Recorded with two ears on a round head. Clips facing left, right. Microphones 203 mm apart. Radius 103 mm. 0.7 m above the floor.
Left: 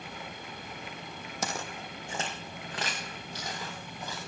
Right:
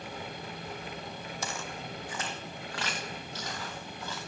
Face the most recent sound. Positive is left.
turn(degrees=10)  # may be behind; listen again after turning